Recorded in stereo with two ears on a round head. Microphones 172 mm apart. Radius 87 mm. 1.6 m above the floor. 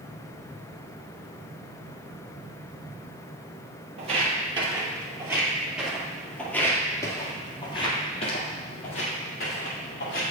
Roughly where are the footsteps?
Right.